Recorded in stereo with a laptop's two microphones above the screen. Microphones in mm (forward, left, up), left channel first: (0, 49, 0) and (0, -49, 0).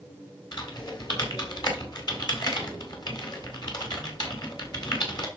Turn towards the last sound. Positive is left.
turn(degrees=50)  # may be behind; listen again after turning